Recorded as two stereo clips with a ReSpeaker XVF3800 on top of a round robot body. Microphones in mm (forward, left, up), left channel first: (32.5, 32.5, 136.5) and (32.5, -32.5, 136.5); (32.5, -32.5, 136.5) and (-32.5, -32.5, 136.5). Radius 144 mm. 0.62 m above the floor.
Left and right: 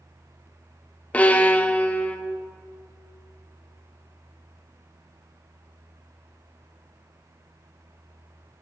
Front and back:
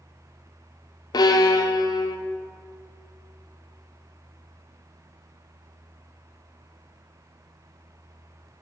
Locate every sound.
1.1 s a violin: 20° left, 0.6 m